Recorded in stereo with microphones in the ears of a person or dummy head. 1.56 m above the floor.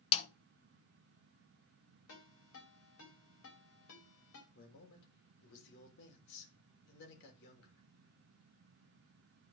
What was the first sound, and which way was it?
A snare drum, 30° left (ahead or behind).